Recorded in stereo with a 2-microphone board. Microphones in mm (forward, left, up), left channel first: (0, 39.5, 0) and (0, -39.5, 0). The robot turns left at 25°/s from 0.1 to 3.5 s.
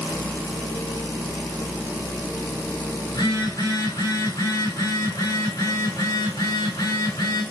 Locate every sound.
3.1 s a phone buzzing: 65° left (ahead or behind), 9 m; by 7.4 s 55° left (ahead or behind), 9 m